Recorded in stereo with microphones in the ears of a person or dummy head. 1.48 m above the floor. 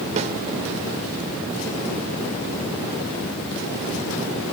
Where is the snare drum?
40° right (ahead or behind), 1.9 m.